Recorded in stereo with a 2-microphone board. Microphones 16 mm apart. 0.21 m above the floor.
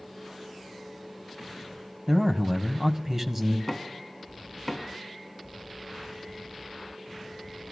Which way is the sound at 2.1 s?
20° right (ahead or behind).